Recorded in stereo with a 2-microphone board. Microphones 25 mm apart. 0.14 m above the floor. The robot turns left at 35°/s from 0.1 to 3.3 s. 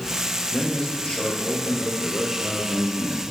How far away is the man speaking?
About 3.5 m.